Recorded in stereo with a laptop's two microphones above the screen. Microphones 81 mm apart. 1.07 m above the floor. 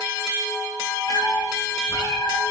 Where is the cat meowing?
55° left (ahead or behind), 0.8 m; by 2.4 s 80° left, 2.5 m.